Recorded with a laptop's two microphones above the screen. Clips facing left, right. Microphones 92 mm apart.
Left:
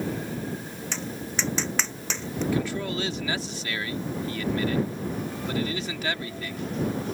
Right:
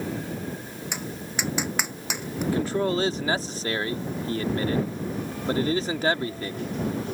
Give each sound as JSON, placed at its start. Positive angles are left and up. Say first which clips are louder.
{"t": 0.9, "sound": "tapping", "louder": "left 1 dB", "side_deg": -10}
{"t": 2.5, "sound": "a man speaking", "louder": "right 7 dB", "side_deg": -40}